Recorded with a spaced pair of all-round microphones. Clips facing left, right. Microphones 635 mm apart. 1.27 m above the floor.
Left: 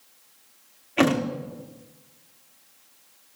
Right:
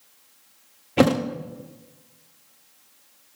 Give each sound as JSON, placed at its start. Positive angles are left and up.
{"t": 1.0, "sound": "a thud", "side_deg": -65, "distance_m": 1.3}